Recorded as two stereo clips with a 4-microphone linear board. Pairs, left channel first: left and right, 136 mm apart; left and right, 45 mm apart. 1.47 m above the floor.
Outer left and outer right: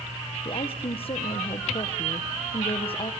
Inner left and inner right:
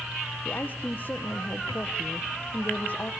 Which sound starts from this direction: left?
A woman speaking, at 0.5 s.